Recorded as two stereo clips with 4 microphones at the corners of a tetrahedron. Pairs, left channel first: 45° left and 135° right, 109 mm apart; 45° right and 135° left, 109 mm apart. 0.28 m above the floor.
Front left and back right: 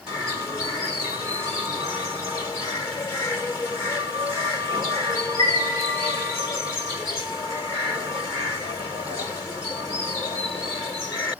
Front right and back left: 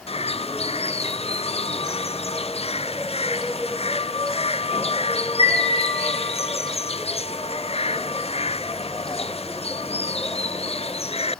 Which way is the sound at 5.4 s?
95° left.